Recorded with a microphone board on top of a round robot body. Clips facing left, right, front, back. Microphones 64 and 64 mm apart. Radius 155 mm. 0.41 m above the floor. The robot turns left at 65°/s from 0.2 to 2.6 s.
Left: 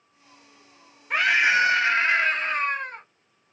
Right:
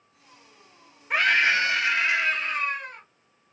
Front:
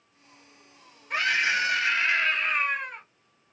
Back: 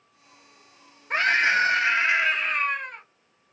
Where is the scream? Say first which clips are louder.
Left 1 dB, back 4 dB; 175° right, 0.9 m; by 3.0 s 85° left, 0.9 m.